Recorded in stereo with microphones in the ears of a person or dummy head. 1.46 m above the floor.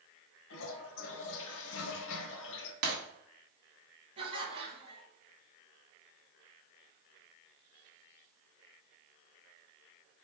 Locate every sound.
0.5 s a toilet flushing: 70° left (ahead or behind), 0.7 m
2.8 s breaking glass: 55° right (ahead or behind), 1.3 m
4.2 s laughter: 30° right (ahead or behind), 1.0 m